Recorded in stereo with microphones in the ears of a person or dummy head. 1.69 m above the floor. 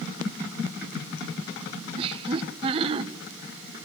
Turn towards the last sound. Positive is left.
turn(degrees=-35)  # may be behind; listen again after turning